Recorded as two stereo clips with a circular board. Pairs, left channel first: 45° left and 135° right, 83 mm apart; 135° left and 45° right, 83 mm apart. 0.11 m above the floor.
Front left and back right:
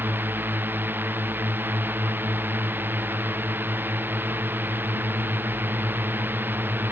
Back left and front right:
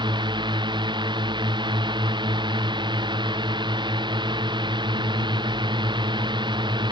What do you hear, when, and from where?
0.0 s a drone: 70° right